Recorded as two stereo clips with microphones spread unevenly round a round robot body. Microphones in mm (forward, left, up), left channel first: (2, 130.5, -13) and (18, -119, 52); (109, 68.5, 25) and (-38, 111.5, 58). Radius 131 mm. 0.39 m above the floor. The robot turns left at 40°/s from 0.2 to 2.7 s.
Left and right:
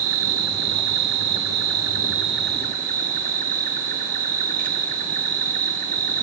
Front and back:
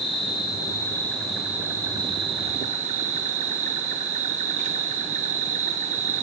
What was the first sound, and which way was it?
An insect, 50° right.